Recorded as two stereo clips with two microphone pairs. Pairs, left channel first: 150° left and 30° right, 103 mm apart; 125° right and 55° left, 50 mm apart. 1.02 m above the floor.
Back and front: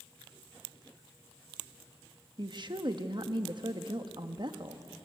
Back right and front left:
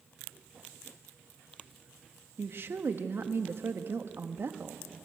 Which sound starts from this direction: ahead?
A woman speaking, at 2.4 s.